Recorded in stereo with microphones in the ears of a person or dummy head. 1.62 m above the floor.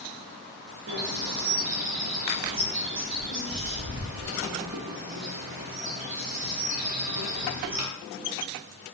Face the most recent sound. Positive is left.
turn(degrees=-40)  # may be behind; listen again after turning